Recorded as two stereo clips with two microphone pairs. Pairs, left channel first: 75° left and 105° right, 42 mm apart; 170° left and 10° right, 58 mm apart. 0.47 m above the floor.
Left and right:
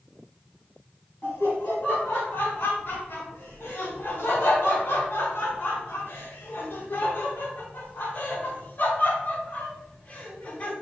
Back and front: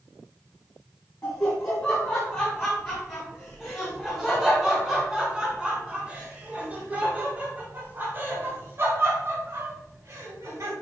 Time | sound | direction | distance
1.2 | laughter | 120° left | 3.5 m